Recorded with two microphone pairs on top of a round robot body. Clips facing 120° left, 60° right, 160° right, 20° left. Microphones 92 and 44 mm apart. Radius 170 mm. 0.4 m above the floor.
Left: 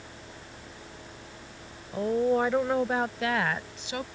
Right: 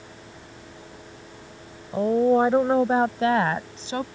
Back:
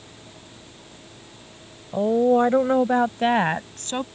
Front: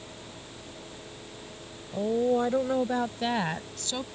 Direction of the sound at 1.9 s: 115° right.